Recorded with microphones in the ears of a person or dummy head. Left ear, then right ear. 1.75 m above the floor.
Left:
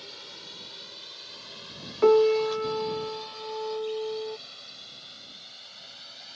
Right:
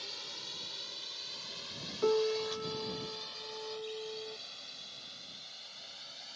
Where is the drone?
15° right (ahead or behind); by 6.4 s 5° right (ahead or behind).